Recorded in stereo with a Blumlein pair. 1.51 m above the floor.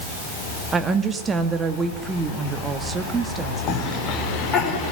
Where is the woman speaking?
15° right, 2.5 m.